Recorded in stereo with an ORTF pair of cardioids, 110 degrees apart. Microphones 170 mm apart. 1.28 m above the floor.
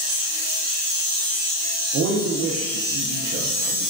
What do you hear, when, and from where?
1.9 s a man speaking: 70° right, 0.5 m